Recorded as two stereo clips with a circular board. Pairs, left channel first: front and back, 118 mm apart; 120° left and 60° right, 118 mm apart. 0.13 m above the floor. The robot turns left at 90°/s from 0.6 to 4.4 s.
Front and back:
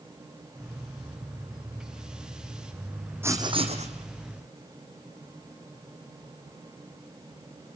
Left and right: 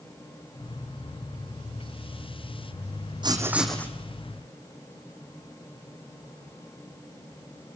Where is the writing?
110° right, 2.5 m; by 3.9 s 175° right, 2.5 m.